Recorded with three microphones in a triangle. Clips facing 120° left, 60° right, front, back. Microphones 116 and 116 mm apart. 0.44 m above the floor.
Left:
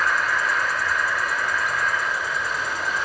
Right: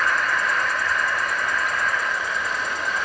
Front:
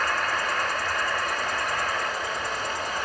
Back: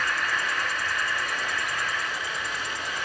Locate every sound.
0.0 s an insect: 35° left, 1.3 m